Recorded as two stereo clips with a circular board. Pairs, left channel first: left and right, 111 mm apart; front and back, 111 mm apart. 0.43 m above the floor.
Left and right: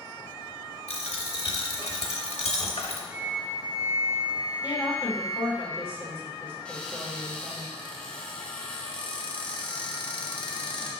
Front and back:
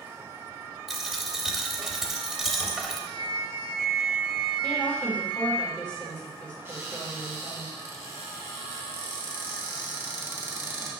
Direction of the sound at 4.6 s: 60° right.